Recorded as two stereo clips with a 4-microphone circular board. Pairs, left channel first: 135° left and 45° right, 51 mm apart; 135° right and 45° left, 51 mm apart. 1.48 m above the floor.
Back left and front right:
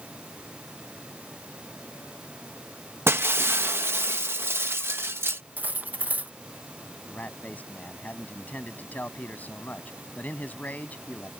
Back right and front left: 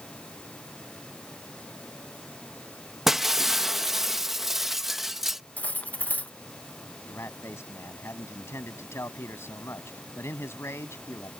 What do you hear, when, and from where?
3.1 s breaking glass: 35° right
5.6 s cutlery clinking: 85° right
7.1 s a man speaking: 165° right